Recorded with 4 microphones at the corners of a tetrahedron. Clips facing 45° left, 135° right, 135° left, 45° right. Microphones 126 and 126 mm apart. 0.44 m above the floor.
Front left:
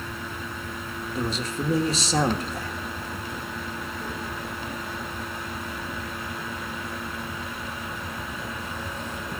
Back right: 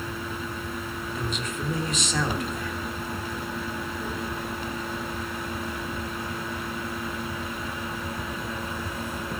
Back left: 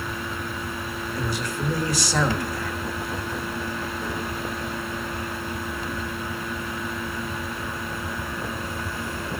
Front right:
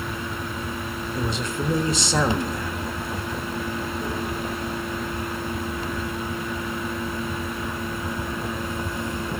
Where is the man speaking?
10° left, 1.3 m.